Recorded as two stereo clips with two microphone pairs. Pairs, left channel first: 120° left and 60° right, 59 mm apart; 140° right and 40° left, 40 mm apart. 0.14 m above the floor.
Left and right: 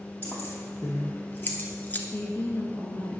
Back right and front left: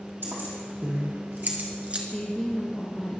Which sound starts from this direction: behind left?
A woman speaking, at 2.1 s.